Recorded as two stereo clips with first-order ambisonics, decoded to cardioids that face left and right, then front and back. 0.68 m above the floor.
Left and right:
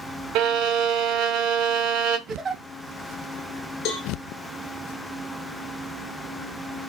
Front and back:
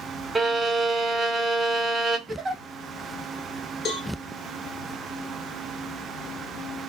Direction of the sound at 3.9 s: 60° left.